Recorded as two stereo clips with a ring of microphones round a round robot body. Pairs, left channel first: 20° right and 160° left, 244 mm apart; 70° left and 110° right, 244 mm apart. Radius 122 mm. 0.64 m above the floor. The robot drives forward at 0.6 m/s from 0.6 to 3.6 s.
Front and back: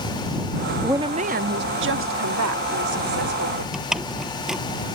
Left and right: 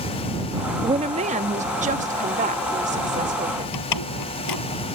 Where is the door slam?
70° left.